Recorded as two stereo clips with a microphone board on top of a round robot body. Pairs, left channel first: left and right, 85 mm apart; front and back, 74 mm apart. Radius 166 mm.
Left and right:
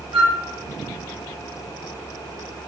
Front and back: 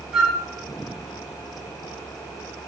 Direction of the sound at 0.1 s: 95° right.